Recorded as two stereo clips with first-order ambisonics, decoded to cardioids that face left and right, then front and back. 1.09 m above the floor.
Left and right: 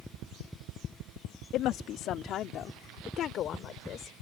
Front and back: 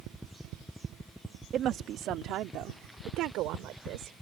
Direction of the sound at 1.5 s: 130° left.